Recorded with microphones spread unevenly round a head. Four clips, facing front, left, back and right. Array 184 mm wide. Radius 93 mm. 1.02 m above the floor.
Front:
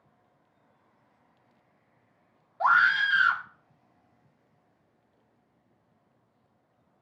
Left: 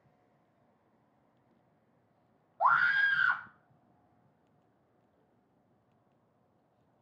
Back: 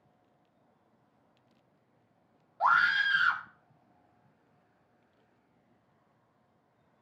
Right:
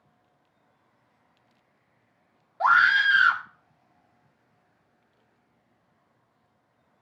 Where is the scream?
85° right, 3 m.